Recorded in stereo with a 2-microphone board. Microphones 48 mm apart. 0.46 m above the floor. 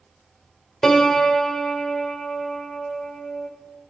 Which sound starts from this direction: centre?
A piano, at 0.8 s.